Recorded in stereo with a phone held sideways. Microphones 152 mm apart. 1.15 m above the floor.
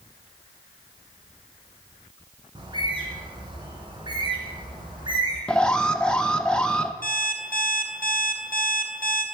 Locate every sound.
2.5 s a bird: 30° right (ahead or behind), 2.5 m
5.5 s an alarm: 5° left (ahead or behind), 0.6 m
7.0 s an alarm clock: 70° left (ahead or behind), 2.5 m